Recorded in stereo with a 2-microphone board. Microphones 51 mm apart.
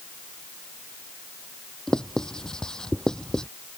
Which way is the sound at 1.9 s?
10° left (ahead or behind).